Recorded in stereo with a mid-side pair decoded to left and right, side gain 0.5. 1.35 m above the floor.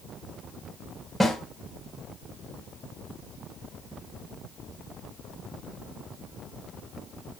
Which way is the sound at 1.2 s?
5° right.